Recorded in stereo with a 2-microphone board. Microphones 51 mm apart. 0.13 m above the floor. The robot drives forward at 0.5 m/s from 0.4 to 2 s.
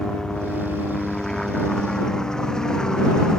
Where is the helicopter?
10° left (ahead or behind).